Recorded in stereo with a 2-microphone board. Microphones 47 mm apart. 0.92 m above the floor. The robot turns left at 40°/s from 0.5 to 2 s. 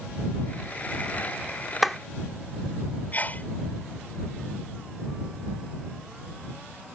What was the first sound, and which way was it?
A clap, 5° right (ahead or behind).